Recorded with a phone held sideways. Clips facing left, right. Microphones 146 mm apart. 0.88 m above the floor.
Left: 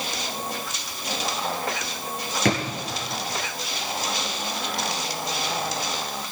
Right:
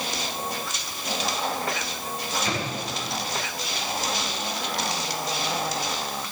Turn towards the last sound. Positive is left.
turn(degrees=70)  # may be behind; listen again after turning